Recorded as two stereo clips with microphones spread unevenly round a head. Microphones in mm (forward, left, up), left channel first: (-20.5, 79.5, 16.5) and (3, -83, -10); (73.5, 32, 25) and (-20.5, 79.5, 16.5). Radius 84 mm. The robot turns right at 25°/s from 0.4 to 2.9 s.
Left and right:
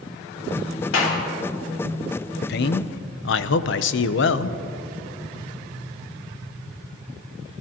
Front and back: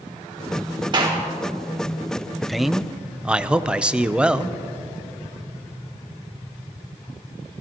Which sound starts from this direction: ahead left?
A man speaking, at 2.4 s.